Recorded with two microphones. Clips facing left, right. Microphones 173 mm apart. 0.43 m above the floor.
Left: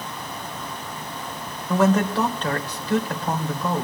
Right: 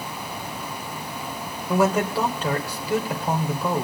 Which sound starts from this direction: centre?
A man speaking, at 1.7 s.